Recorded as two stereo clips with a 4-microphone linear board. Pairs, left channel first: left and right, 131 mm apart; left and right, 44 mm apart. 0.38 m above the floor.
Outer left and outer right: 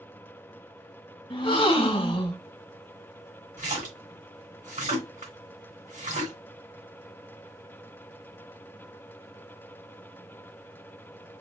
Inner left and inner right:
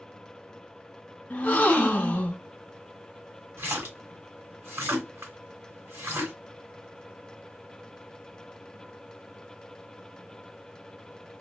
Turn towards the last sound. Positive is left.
turn(degrees=-75)  # may be behind; listen again after turning